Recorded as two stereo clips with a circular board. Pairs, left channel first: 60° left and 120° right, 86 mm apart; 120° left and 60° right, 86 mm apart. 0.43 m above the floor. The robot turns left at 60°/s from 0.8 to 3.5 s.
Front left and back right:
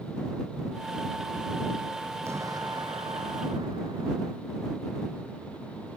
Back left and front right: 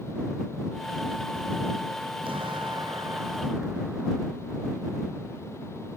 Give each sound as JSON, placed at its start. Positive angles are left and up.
{"t": 2.2, "sound": "an explosion", "azimuth_deg": -60}